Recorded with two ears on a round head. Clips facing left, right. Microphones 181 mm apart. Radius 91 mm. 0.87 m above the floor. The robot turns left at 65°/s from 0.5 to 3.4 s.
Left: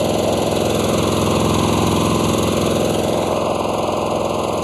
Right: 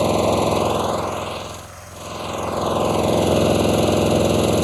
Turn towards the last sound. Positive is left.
turn(degrees=-15)